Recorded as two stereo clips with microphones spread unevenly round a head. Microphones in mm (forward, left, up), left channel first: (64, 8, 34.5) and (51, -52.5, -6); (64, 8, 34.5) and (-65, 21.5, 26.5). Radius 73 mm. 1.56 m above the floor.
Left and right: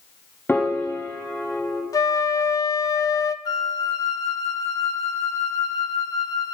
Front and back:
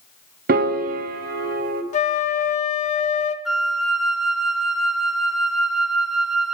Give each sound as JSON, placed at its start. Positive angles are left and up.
{"t": 0.5, "sound": "a piano", "azimuth_deg": 155, "distance_m": 0.7}
{"t": 1.9, "sound": "a flute", "azimuth_deg": 30, "distance_m": 0.6}
{"t": 3.5, "sound": "a flute", "azimuth_deg": 85, "distance_m": 0.7}